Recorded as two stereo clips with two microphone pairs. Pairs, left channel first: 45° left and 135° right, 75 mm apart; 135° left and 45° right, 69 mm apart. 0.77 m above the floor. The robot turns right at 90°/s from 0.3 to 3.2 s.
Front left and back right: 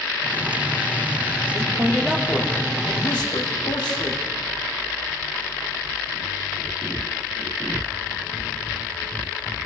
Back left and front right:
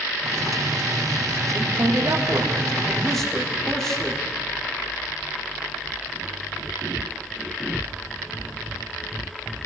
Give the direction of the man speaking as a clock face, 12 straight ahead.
3 o'clock.